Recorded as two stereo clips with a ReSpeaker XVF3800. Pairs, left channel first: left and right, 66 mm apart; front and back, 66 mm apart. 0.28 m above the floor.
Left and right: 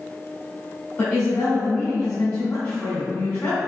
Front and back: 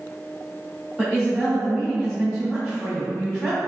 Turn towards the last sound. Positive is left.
turn(degrees=120)